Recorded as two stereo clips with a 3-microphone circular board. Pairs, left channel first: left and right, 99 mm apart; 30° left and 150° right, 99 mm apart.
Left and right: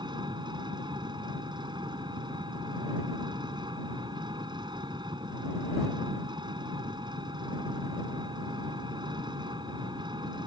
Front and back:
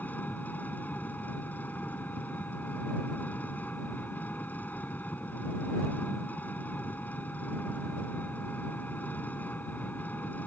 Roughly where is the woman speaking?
I don't hear a woman speaking.